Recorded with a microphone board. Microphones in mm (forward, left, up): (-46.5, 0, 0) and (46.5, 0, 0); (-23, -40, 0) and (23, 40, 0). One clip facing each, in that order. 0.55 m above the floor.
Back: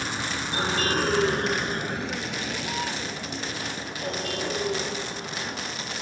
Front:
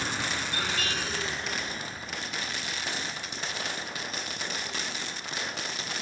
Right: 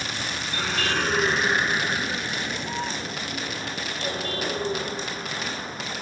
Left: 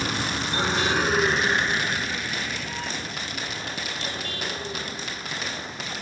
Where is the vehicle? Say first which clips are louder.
Back 2 dB, left 4 dB; 95° left; by 6.0 s 170° right.